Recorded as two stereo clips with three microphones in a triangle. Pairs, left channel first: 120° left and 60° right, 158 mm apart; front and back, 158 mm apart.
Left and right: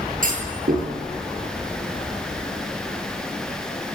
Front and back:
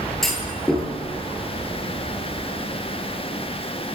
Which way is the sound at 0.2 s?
90° right.